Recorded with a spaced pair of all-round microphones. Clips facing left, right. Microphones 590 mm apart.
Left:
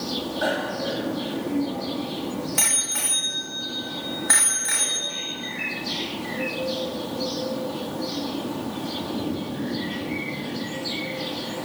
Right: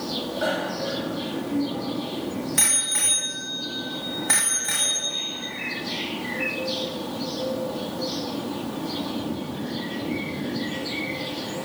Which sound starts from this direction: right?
A bicycle bell, at 0.4 s.